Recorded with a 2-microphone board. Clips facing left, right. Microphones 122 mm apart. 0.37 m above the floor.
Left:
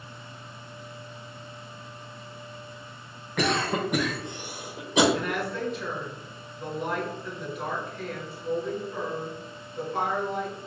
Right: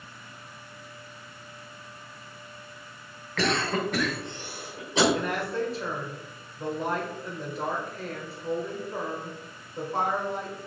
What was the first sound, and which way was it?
A cough, 15° left (ahead or behind).